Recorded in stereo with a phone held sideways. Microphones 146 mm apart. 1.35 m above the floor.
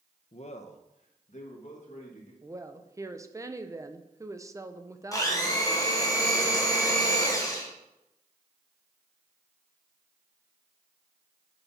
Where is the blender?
25° left (ahead or behind), 1.4 m.